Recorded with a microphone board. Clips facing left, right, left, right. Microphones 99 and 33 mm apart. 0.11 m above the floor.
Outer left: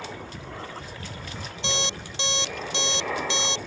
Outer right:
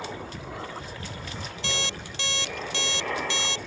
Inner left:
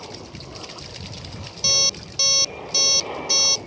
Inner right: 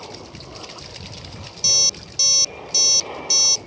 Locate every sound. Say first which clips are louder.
0.0 s an aircraft: outer right 1 dB, even; 5° right (ahead or behind); by 3.7 s 5° left (ahead or behind)
1.6 s an alarm clock: outer left 4 dB, inner left 1 dB; 20° left (ahead or behind)